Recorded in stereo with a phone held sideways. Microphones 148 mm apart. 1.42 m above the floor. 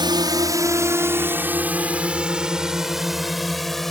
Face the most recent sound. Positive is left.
turn(degrees=0)  # may be behind; listen again after turning